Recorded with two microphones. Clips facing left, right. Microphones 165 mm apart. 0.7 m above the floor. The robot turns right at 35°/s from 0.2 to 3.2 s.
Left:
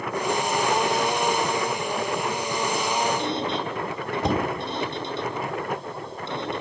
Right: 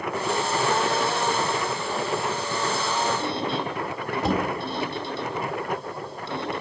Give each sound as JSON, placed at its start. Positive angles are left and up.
{"t": 3.2, "sound": "a squeak", "side_deg": 20, "distance_m": 2.5}